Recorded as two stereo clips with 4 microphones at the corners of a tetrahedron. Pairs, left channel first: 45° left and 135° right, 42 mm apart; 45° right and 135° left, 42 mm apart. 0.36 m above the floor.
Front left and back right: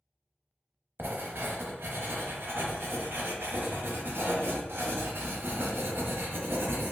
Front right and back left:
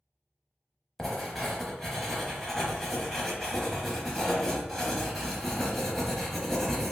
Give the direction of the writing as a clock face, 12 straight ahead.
4 o'clock.